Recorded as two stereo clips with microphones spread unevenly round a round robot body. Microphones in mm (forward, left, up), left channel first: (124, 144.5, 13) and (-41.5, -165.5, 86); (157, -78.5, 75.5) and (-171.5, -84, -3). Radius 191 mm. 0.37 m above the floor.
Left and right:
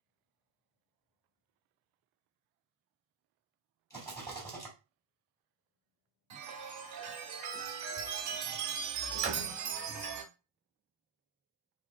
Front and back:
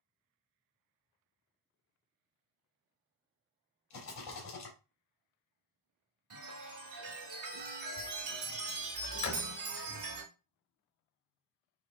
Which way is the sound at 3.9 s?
10° right.